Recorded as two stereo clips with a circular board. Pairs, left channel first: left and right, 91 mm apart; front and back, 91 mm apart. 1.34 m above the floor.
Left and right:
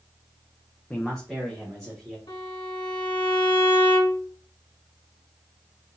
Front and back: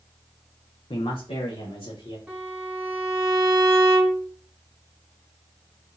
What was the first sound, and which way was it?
A man speaking, 10° left.